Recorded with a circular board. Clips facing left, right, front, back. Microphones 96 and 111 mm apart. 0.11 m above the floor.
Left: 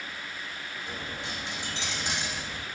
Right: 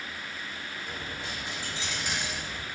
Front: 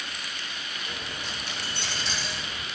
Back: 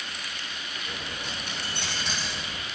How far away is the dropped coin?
About 2.5 m.